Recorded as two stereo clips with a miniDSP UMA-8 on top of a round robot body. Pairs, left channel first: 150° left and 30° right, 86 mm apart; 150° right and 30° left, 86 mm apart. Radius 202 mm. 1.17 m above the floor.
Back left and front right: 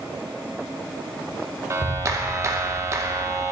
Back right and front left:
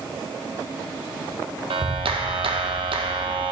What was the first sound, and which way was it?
A clap, 25° left.